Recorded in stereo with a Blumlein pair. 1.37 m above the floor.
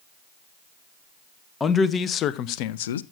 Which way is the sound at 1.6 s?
15° left.